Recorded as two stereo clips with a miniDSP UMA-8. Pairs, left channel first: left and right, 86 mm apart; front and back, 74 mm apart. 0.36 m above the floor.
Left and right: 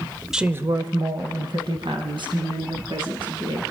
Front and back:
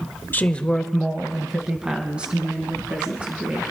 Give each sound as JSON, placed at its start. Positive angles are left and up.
{"t": 0.3, "sound": "a woman speaking", "azimuth_deg": -15, "distance_m": 0.8}